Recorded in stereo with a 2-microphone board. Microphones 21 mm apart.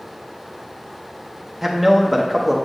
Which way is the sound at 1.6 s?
10° right (ahead or behind).